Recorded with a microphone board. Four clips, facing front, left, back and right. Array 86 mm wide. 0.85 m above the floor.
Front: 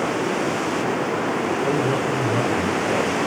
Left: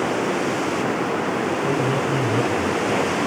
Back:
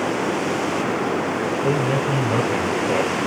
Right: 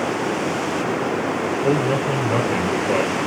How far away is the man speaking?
About 3 m.